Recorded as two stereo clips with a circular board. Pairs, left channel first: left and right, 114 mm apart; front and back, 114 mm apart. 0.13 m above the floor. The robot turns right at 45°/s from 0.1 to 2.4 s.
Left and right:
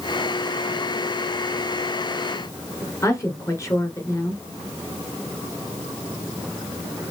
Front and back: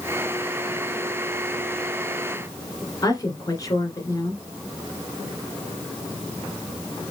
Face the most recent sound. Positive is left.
turn(degrees=40)